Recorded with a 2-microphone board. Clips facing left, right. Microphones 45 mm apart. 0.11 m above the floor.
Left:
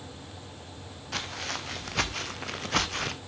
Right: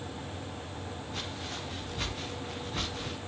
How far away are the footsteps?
About 3.5 m.